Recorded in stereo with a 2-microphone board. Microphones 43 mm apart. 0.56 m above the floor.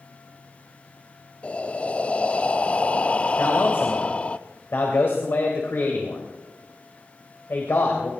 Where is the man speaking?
60° left (ahead or behind), 2.5 m.